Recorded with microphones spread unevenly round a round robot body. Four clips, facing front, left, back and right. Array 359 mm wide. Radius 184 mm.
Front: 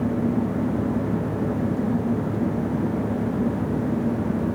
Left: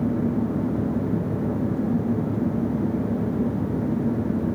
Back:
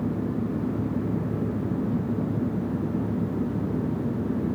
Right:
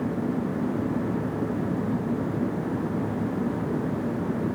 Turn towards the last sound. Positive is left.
No sound to turn to.